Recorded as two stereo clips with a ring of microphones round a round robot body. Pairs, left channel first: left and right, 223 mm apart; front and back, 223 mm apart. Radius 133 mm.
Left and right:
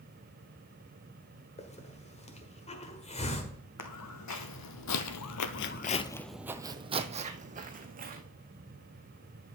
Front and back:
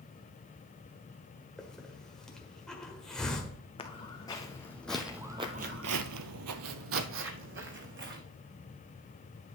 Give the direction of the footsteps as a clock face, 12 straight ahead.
10 o'clock.